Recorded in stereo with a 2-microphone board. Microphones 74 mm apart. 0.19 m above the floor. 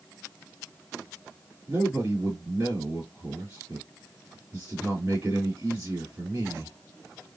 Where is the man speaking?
30° right (ahead or behind), 2.5 m.